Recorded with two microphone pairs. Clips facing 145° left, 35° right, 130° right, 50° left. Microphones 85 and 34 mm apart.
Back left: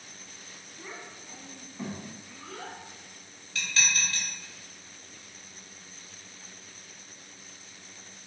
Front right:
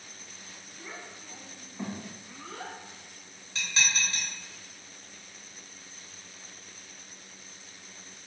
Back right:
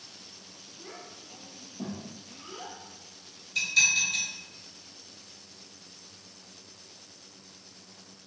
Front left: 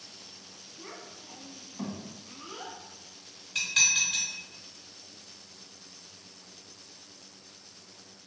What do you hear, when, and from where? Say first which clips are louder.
0.8 s a child speaking: back left 1 dB, front left 1 dB; 85° left, 1.2 m; by 2.8 s 15° left, 1.3 m
3.5 s dishes clattering: even, back right 2 dB; 30° left, 1.8 m